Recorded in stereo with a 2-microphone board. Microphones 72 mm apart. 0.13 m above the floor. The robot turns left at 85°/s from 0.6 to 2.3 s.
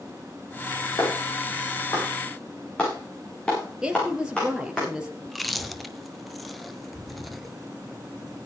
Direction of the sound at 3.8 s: 10° right (ahead or behind).